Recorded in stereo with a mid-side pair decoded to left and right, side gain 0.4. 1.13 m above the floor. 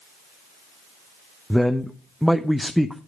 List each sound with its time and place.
1.5 s a man speaking: straight ahead, 0.8 m